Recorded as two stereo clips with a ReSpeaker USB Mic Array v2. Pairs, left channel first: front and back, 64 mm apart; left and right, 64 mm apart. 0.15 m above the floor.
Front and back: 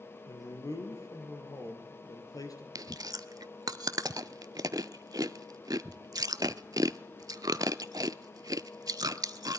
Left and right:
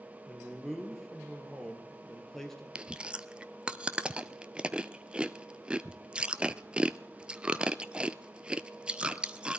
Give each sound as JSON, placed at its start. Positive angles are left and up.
{"t": 0.3, "sound": "a man speaking", "azimuth_deg": 5, "distance_m": 3.0}
{"t": 2.8, "sound": "chewing", "azimuth_deg": -165, "distance_m": 0.5}